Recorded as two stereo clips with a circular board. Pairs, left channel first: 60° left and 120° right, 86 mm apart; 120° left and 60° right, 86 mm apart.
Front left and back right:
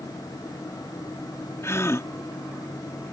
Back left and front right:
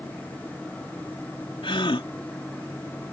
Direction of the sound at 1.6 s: 115° left.